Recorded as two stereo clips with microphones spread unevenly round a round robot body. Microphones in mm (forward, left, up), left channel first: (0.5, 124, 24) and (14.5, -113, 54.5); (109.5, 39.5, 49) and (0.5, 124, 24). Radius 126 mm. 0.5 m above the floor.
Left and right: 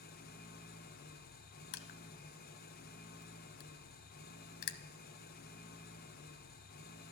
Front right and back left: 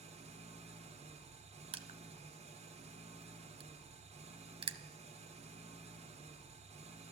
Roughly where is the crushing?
Left.